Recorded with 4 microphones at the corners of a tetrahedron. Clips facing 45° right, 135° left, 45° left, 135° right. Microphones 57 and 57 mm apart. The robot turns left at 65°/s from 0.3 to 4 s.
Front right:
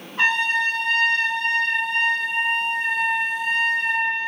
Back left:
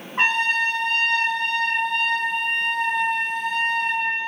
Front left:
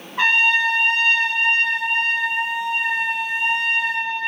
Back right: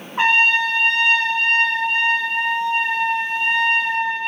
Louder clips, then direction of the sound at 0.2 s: Even, back right 1 dB; 170° left.